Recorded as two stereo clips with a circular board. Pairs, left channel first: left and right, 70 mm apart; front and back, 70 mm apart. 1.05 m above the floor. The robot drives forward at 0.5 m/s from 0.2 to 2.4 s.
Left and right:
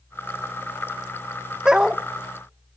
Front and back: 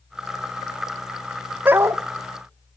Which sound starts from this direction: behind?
A dog barking, at 1.6 s.